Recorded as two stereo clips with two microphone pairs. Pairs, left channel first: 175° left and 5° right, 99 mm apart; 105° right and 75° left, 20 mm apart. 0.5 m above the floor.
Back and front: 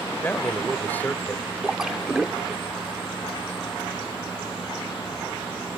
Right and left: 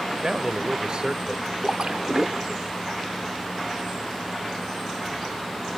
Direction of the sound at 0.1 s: 105° left.